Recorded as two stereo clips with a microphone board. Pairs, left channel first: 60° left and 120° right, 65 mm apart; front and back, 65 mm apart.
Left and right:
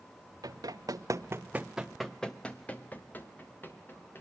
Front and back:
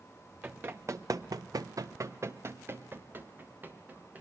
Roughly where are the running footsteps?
Behind right.